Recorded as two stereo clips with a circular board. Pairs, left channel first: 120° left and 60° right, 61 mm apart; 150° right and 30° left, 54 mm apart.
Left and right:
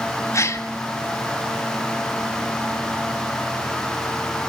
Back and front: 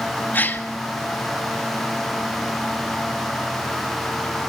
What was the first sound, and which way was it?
A gasp, 160° left.